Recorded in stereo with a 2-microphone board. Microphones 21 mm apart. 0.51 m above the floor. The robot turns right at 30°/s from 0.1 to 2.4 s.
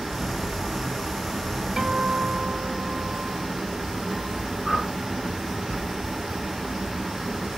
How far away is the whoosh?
About 4 m.